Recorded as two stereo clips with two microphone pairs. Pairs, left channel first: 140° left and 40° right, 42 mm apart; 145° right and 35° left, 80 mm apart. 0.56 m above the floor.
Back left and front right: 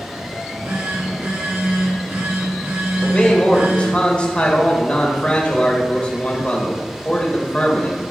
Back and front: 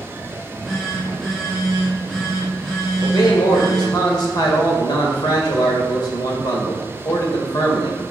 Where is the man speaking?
160° right, 1.8 m.